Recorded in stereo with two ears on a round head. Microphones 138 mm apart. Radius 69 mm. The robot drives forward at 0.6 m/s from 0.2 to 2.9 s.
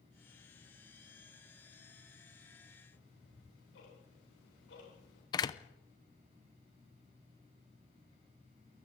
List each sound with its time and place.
2.9 s ticking: 80° left, 8.5 m
5.3 s a door slam: 25° left (ahead or behind), 0.6 m